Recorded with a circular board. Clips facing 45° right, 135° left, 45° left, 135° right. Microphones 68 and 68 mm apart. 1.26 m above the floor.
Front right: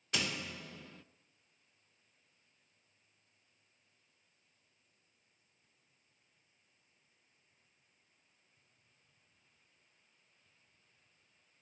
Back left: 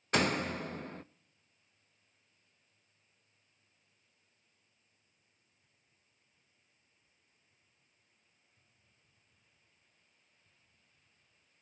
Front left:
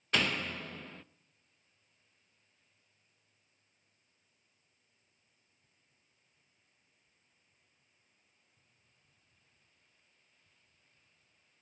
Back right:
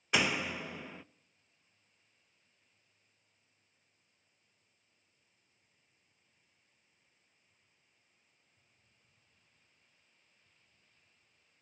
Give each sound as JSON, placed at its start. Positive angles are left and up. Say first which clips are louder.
{"t": 0.1, "sound": "a door slam", "louder": "back left 9 dB, back right 1 dB", "azimuth_deg": 150, "distance_m": 0.5}